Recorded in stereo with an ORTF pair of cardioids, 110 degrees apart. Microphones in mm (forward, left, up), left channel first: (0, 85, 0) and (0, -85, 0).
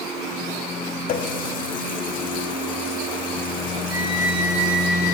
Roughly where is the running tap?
Ahead left.